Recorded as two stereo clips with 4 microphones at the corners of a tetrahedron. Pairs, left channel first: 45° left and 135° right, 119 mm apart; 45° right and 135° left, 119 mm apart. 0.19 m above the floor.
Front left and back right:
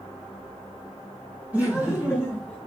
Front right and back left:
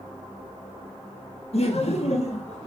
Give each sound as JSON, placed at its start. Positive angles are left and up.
{"t": 1.5, "sound": "laughter", "azimuth_deg": -60, "distance_m": 2.5}